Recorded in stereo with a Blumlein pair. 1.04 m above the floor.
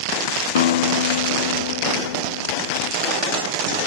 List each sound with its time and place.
0.6 s a guitar: 60° left, 1.1 m